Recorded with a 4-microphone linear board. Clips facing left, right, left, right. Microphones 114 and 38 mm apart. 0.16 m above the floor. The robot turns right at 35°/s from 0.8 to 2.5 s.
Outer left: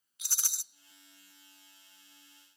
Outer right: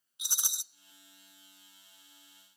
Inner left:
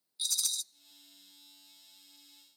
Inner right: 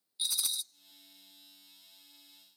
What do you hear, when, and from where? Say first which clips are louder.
0.2 s a rattle: outer right 2 dB, inner right 1 dB; 20° right (ahead or behind), 0.5 m